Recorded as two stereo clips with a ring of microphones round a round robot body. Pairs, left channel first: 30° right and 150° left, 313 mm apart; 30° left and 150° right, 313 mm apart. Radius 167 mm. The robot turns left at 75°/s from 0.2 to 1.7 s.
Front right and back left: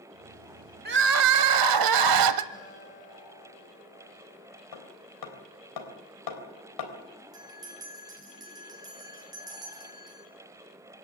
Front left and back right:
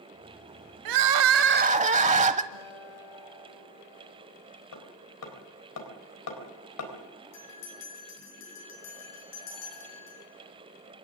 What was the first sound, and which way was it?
Crying, 150° right.